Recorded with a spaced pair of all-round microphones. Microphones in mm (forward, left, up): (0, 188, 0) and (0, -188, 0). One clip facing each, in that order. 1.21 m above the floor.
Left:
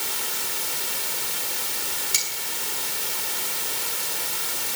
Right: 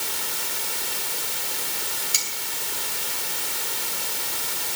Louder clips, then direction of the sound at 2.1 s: Left 1 dB; 30° left (ahead or behind).